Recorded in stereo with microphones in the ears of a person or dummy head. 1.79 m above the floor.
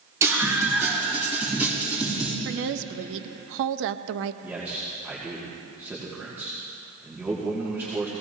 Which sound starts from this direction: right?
A woman speaking, at 2.5 s.